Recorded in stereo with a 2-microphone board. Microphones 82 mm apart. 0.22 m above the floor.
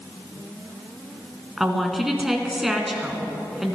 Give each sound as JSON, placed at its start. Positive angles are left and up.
{"t": 1.6, "sound": "a woman speaking", "side_deg": 0, "distance_m": 2.5}